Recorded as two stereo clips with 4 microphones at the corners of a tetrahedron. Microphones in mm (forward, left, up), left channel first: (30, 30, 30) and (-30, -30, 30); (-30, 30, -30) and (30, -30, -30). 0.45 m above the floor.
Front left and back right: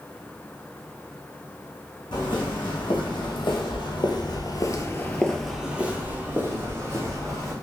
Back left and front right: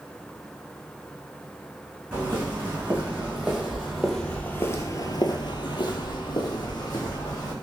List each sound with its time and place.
2.1 s footsteps: 25° left, 1.9 m; by 7.5 s 175° left, 1.7 m